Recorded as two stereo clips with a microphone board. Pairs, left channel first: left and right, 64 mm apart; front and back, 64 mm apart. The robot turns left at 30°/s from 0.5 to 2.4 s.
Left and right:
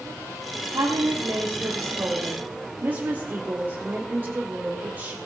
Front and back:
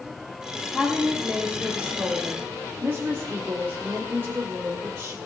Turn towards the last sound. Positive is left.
turn(degrees=-140)